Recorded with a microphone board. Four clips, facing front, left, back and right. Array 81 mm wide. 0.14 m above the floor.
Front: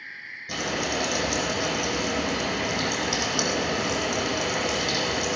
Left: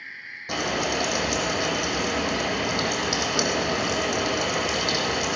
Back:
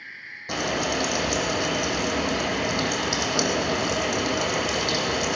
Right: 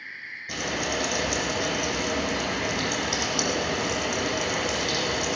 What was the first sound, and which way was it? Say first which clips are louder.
Frying: left 3 dB, back 3 dB; 140° left.